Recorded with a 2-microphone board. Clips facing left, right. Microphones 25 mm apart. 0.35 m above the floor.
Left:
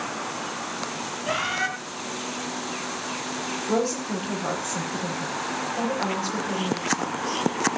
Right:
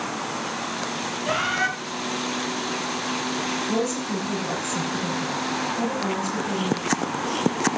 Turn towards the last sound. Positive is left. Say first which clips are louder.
# even
turn(degrees=55)  # may be behind; listen again after turning